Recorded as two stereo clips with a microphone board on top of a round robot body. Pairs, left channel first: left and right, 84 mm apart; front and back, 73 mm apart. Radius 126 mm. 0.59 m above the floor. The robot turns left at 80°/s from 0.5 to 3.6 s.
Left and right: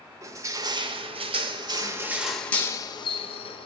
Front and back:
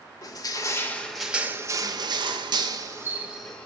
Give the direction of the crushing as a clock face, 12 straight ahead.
1 o'clock.